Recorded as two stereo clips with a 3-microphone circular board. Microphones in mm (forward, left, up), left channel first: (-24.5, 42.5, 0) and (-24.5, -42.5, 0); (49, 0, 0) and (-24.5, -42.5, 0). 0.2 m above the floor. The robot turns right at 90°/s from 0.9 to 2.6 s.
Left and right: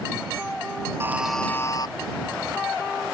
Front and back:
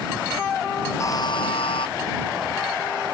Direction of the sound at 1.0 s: 30° right.